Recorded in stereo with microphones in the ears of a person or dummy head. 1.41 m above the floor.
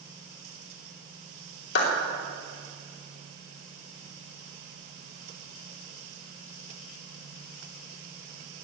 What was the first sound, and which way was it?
A clap, 65° left (ahead or behind).